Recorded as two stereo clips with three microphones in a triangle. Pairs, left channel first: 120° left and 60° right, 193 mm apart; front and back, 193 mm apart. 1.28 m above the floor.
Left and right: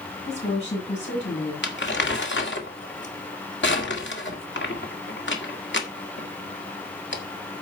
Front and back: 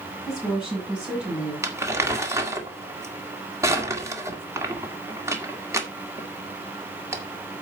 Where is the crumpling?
105° left, 1.9 m.